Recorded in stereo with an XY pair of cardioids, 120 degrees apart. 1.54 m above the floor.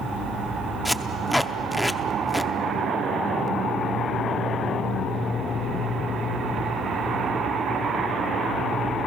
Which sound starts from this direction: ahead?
Tape being pulled, at 0.8 s.